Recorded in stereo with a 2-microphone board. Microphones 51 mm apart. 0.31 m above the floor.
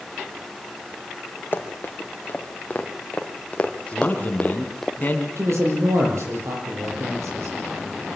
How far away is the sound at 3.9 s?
About 3.5 m.